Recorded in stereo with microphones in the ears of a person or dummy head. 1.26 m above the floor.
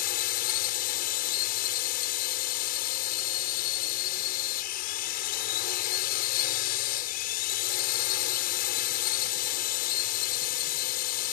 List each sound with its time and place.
0.0 s a drone: 55° left (ahead or behind)